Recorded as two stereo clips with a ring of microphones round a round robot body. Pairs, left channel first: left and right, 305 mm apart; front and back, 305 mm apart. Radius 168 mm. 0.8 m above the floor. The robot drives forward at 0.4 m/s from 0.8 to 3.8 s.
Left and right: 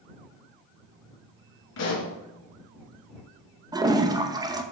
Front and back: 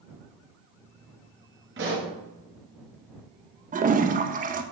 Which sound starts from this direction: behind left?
A pop, at 1.8 s.